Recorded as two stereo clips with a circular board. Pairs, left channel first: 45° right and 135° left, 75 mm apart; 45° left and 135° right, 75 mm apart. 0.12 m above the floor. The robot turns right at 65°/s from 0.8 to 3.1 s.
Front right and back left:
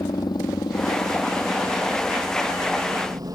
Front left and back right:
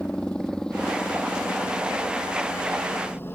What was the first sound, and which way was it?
A helicopter, 35° right.